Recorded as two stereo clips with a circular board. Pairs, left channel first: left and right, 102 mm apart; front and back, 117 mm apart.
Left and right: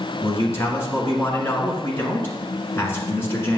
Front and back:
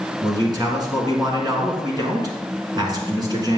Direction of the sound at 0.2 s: 145° left.